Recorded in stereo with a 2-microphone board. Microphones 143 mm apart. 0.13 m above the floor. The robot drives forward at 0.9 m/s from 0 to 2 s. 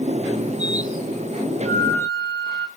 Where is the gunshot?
I don't hear a gunshot.